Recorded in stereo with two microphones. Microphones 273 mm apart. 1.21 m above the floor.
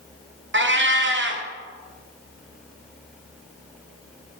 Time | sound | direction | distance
0.5 | a cat meowing | 45° right (ahead or behind) | 0.6 m